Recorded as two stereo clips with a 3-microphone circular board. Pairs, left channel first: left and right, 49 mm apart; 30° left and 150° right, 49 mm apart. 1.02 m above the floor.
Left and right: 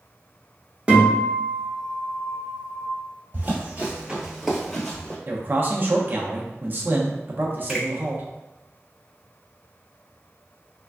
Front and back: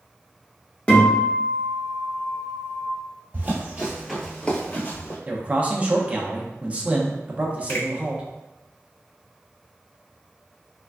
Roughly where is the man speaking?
Right.